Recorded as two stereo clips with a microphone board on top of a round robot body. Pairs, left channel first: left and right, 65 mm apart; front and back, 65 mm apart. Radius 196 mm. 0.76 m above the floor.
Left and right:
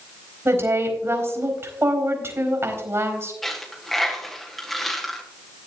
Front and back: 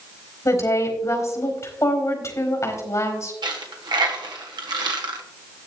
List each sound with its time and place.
0.5 s a woman speaking: 40° right, 4.5 m
3.4 s a dropped coin: straight behind, 1.3 m